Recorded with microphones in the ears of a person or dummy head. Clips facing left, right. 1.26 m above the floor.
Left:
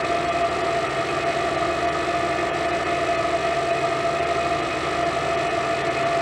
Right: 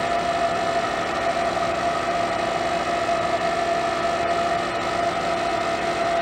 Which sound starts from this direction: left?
An engine running, at 0.0 s.